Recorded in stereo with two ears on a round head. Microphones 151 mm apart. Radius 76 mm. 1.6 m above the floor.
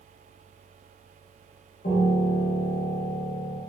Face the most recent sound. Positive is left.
turn(degrees=50)  # may be behind; listen again after turning